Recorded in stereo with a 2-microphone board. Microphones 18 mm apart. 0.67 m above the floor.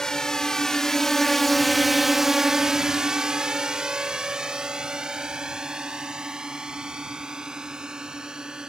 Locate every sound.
0.0 s a drone: 35° left (ahead or behind); by 8.7 s 45° right (ahead or behind)